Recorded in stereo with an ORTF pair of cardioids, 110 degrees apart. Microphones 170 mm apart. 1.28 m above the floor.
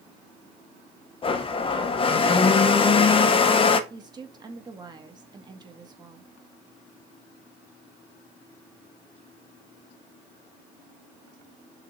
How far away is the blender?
About 1.0 m.